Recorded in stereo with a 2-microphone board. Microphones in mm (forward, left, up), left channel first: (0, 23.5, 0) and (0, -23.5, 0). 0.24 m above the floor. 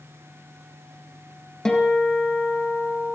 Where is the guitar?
10° left (ahead or behind), 3.5 m.